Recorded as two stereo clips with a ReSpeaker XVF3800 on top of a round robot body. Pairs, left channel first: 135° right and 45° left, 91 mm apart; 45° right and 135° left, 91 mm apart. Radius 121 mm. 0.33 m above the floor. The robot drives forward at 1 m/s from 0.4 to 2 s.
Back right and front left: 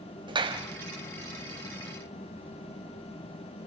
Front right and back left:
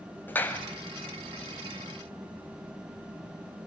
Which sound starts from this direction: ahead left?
A clap, at 0.3 s.